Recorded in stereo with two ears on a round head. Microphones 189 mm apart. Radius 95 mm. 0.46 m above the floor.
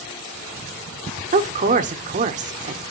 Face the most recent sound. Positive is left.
turn(degrees=-35)  # may be behind; listen again after turning